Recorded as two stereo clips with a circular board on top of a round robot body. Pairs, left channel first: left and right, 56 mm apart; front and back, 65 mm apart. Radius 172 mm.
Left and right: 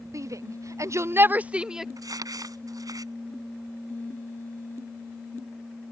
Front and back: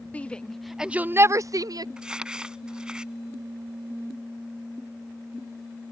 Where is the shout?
70° right; by 1.9 s 170° right.